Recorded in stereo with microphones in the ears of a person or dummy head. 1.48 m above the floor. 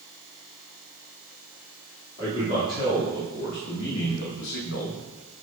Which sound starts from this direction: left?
A man speaking, at 2.2 s.